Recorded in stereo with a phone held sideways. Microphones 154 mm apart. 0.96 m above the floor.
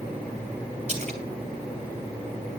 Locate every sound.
0.9 s a splash: 45° right (ahead or behind), 3 m